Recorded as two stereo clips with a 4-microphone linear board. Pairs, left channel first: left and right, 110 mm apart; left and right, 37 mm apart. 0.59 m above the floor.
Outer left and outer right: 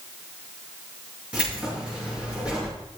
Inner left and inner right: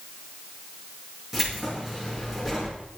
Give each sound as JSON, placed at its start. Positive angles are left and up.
{"t": 1.3, "sound": "keys jangling", "side_deg": -10, "distance_m": 5.5}